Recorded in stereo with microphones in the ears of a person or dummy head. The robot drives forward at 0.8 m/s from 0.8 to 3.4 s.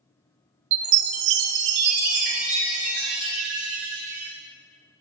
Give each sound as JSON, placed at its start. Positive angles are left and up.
{"t": 0.7, "sound": "a chime", "side_deg": -65, "distance_m": 0.8}